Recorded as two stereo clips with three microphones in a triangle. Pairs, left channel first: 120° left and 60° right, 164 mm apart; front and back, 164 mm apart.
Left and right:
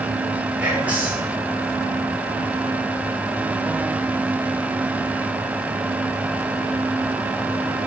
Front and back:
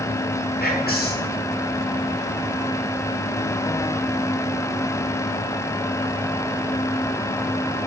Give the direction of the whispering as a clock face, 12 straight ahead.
11 o'clock.